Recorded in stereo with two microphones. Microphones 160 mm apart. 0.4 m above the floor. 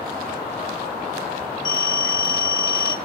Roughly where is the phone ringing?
Right.